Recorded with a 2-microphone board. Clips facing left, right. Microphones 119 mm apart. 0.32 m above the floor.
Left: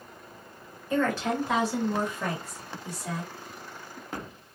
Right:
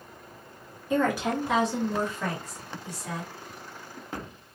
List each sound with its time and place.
0.9 s a woman speaking: 20° right (ahead or behind), 1.1 m; by 3.3 s 35° left (ahead or behind), 1.7 m